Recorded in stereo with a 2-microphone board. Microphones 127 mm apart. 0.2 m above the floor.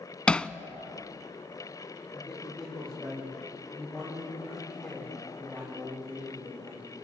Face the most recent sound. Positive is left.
turn(degrees=5)  # may be behind; listen again after turning